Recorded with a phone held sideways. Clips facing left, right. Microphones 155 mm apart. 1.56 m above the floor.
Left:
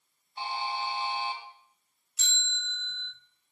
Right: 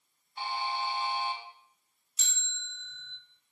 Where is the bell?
80° left, 5 m.